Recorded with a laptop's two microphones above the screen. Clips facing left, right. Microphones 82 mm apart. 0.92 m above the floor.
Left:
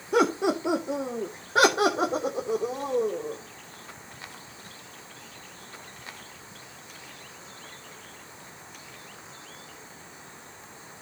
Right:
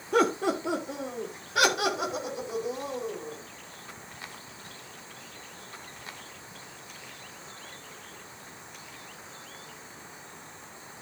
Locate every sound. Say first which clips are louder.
0.1 s laughter: left 2 dB; 5° left (ahead or behind), 1.6 m; by 3.4 s 50° left (ahead or behind), 3.5 m